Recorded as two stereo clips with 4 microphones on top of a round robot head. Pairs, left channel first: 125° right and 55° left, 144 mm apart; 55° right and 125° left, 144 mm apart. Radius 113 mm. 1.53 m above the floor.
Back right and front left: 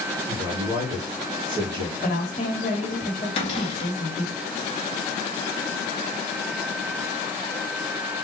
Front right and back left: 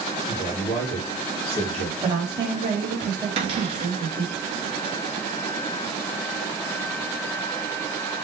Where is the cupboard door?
Straight behind, 0.9 m.